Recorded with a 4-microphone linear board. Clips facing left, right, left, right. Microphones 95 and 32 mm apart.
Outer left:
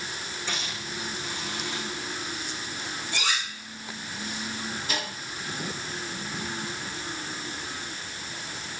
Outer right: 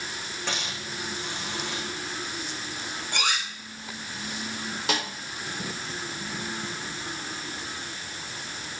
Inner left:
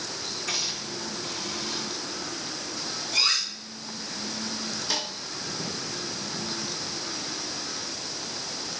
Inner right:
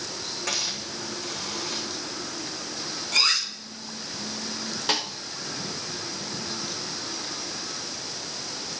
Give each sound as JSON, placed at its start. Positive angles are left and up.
{"t": 0.5, "sound": "a hiss", "side_deg": -60, "distance_m": 8.5}
{"t": 3.1, "sound": "cutlery clinking", "side_deg": -50, "distance_m": 5.5}
{"t": 4.9, "sound": "a snare drum", "side_deg": -70, "distance_m": 5.5}